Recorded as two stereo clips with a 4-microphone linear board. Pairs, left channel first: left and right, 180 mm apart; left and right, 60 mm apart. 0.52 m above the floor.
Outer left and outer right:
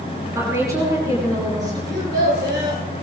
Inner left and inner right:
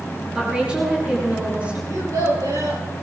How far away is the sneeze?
No sneeze in this recording.